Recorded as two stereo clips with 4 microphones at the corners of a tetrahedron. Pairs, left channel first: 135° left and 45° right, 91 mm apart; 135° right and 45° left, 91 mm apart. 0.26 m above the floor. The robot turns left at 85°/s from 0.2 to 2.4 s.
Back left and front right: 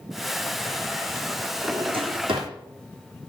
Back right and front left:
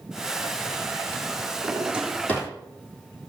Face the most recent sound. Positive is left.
turn(degrees=-70)